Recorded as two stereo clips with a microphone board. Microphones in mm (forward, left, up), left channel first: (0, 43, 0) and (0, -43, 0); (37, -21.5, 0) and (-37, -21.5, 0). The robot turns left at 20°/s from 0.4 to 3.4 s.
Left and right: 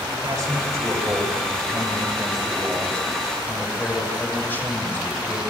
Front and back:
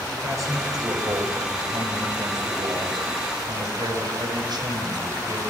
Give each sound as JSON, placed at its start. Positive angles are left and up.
{"t": 0.2, "sound": "a man speaking", "azimuth_deg": -140, "distance_m": 8.5}